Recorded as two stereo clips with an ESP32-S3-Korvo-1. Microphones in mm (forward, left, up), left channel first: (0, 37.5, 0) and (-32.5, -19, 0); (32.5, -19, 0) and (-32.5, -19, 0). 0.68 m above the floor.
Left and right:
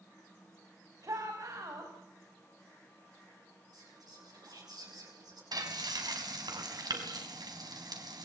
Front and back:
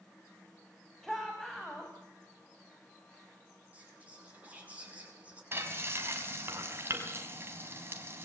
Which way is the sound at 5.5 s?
125° right.